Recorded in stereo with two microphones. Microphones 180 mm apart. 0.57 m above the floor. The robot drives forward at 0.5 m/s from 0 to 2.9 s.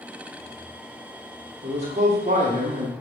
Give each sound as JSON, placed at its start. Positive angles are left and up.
{"t": 1.6, "sound": "a man speaking", "side_deg": -35, "distance_m": 1.2}